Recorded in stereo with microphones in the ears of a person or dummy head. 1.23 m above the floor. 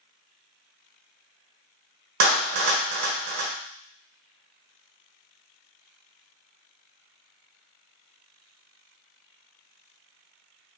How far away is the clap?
About 0.9 m.